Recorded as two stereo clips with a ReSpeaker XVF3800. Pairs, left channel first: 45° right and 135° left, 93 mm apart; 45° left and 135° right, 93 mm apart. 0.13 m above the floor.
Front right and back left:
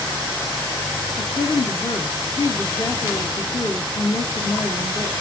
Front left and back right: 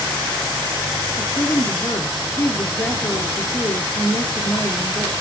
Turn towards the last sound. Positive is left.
turn(degrees=-15)